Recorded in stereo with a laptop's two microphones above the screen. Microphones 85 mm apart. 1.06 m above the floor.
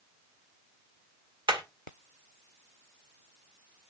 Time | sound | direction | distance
1.5 | hammering | 80° right | 1.8 m